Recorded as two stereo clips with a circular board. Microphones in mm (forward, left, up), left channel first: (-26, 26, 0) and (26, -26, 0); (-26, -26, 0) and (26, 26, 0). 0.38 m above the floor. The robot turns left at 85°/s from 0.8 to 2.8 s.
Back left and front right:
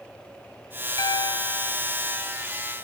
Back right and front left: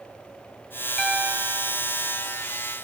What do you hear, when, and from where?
1.0 s a piano: 140° left, 0.9 m; by 2.5 s 15° left, 0.9 m